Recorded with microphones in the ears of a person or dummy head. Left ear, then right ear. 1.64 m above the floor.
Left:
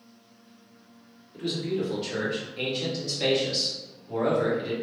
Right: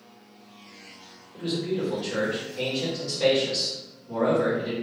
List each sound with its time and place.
1.3 s a man speaking: 10° left (ahead or behind), 1.6 m